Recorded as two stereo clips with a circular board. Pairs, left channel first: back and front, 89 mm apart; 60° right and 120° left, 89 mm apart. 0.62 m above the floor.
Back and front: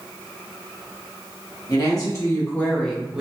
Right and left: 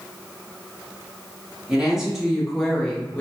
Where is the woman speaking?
160° right, 1.0 m; by 3.2 s 50° right, 0.6 m.